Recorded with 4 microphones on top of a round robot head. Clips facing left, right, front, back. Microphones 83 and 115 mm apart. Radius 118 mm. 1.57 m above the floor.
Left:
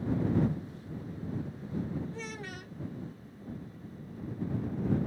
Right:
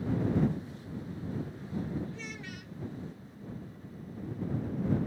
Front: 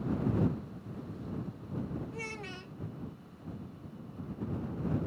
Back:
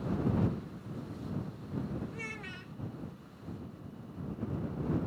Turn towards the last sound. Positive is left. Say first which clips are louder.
# left 2 dB, front 2 dB
turn(degrees=55)